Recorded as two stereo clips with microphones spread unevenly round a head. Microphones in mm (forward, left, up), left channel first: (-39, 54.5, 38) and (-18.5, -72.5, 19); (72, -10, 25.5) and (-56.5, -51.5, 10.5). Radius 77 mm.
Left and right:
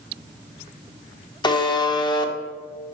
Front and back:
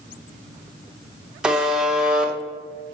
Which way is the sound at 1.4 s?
130° left.